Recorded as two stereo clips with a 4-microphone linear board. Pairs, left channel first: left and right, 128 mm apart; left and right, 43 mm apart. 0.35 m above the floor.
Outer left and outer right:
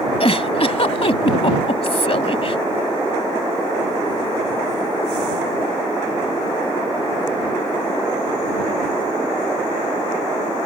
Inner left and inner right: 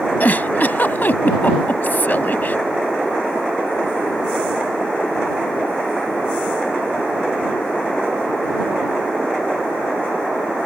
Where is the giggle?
50° left (ahead or behind).